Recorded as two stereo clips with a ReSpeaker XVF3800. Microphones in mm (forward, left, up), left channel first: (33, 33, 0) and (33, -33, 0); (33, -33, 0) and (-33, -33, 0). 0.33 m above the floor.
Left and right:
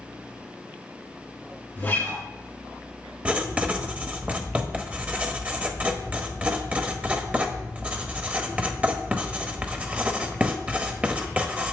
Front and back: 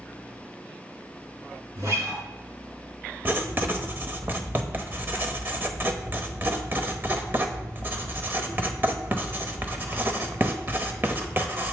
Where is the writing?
145° right, 0.8 m.